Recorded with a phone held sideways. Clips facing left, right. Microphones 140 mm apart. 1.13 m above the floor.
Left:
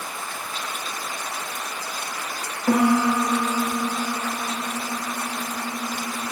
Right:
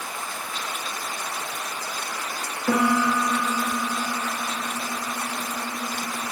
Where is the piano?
30° left (ahead or behind), 1.4 m.